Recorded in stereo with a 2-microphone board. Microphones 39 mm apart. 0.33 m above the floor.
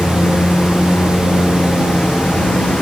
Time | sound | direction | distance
0.0 | a lawn mower | 30° left (ahead or behind) | ?